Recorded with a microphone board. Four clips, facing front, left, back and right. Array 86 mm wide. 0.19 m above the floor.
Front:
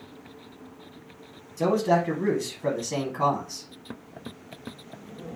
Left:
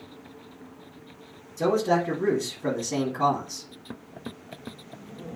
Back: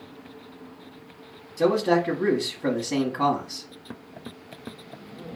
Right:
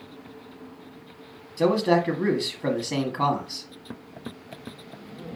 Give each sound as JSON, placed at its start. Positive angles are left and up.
{"t": 1.6, "sound": "a man speaking", "azimuth_deg": -115, "distance_m": 1.1}